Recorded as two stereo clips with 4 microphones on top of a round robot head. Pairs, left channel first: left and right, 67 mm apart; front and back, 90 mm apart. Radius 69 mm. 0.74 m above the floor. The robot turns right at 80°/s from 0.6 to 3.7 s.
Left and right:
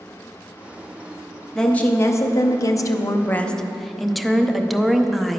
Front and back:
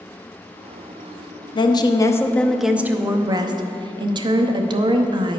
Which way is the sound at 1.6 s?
5° left.